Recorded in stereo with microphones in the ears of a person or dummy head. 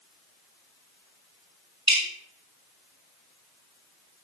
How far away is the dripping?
About 4.5 m.